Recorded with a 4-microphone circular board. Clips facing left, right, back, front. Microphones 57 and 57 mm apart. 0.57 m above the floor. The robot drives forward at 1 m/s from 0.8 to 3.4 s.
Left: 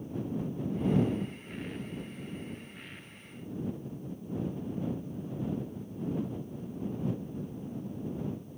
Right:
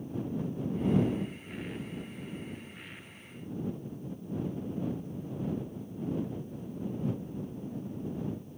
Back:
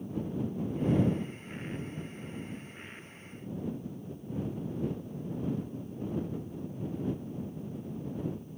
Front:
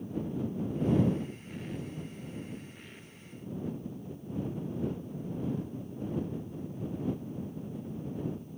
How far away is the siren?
I don't hear a siren.